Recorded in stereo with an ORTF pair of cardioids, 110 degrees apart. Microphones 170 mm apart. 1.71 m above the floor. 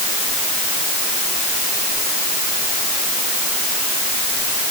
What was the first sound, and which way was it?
Only background noise.